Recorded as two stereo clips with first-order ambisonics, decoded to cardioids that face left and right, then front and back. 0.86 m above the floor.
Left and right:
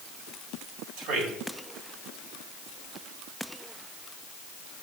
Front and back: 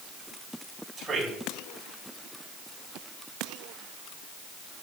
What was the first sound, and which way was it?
A man speaking, 90° right.